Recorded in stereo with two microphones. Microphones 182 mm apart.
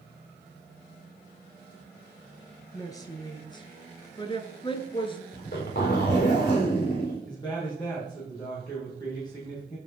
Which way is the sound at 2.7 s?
20° left (ahead or behind).